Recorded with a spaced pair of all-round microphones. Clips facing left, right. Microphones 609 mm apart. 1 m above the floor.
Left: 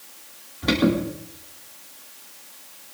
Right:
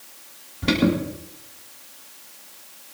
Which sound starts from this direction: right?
An alarm, at 0.6 s.